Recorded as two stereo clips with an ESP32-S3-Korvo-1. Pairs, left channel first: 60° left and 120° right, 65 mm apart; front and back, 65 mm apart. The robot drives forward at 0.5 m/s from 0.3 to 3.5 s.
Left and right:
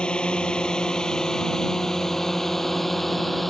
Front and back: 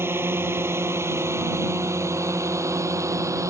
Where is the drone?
135° left; by 3.5 s 150° left.